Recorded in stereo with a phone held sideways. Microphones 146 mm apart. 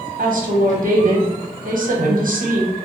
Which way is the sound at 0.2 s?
70° right (ahead or behind).